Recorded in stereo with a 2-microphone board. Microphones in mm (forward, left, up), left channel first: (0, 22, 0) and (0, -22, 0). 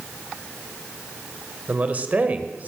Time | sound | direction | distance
1.7 | a man speaking | 35° right (ahead or behind) | 1.4 m